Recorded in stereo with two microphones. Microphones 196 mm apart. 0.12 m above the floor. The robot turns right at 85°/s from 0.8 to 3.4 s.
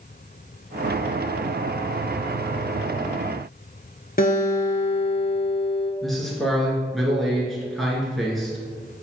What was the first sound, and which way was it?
A guitar, 50° left (ahead or behind).